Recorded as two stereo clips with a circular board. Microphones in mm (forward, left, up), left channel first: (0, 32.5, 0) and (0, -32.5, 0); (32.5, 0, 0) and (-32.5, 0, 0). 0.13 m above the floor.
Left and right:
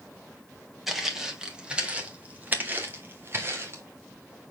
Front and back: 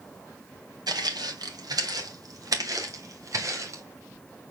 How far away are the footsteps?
About 2.5 m.